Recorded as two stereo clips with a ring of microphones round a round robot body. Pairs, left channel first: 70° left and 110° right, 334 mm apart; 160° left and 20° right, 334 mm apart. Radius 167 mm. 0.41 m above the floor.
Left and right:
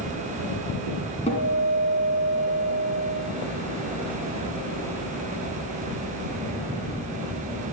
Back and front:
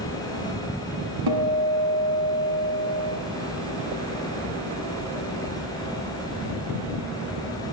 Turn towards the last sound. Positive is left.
turn(degrees=-5)